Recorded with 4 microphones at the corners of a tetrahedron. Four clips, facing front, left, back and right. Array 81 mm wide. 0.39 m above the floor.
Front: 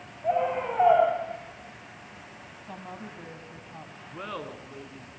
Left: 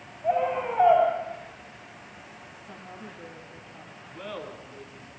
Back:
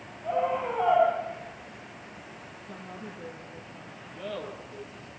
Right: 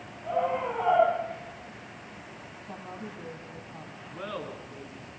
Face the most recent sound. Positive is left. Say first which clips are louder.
# right 1 dB, even
turn(degrees=-25)